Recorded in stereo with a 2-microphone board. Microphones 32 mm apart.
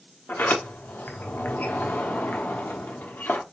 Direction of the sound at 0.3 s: 75° left (ahead or behind).